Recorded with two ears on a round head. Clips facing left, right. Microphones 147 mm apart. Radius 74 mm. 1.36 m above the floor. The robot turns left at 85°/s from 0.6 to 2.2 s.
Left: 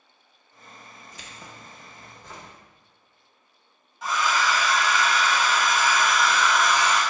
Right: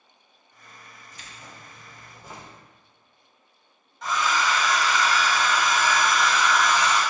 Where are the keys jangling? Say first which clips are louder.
Left 1 dB; 80° left, 0.6 m; by 2.5 s 10° right, 0.6 m.